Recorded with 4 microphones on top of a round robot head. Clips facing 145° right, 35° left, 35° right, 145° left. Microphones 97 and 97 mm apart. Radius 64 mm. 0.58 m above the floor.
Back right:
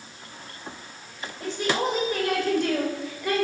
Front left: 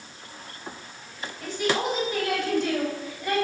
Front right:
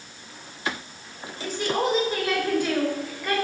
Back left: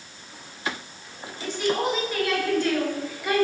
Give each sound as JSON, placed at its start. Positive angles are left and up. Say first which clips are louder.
{"t": 1.4, "sound": "a woman speaking", "louder": "even, even", "azimuth_deg": -85, "distance_m": 3.5}